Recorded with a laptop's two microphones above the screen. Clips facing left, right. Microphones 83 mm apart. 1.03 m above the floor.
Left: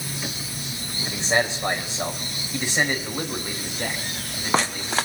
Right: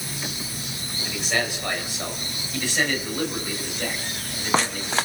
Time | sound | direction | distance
1.0 | a man speaking | 30° left (ahead or behind) | 5 m